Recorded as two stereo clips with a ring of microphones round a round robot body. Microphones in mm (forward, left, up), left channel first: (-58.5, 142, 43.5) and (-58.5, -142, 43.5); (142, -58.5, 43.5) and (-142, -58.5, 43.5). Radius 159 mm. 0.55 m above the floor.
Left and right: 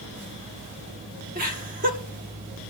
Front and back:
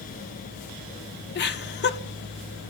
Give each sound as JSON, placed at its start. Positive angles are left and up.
{"t": 1.4, "sound": "laughter", "azimuth_deg": -40, "distance_m": 1.2}